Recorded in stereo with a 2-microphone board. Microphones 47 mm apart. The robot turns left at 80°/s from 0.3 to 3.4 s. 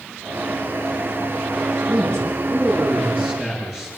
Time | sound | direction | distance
1.9 | a man speaking | 45° right | 7.5 m